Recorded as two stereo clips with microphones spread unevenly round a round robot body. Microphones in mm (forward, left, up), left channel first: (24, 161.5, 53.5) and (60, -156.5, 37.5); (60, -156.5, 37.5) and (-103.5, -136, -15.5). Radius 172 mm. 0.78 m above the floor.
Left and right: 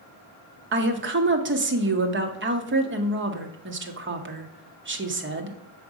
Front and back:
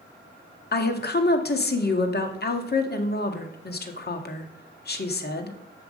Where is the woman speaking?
35° right, 1.8 m.